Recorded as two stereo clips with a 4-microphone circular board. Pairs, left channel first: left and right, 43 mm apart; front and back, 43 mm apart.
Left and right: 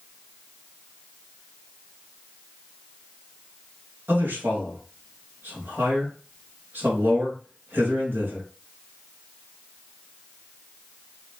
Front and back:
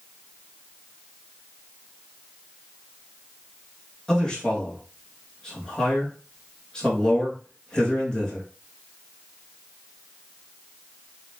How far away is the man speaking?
About 1.9 m.